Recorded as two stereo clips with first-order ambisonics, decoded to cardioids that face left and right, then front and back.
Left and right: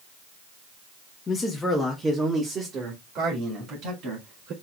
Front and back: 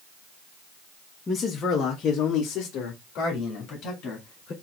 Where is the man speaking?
55° left, 0.9 m; by 4.5 s 50° right, 2.5 m.